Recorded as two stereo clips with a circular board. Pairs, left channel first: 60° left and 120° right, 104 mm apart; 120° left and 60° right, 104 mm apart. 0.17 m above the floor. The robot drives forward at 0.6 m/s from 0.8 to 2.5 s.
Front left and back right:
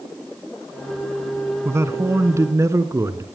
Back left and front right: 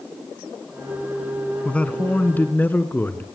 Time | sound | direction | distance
1.6 | a man speaking | 170° right | 1.3 m